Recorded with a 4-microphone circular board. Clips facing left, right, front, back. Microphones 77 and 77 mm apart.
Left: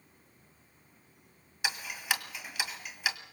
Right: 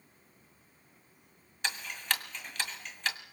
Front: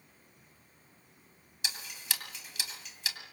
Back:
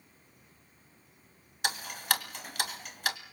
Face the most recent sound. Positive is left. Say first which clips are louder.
# left 1 dB, back 9 dB
turn(degrees=170)